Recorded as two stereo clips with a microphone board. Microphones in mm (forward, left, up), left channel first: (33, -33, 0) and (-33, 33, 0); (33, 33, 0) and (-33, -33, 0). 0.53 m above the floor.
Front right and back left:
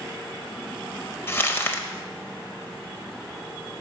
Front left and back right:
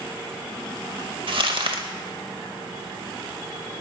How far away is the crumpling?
About 0.6 m.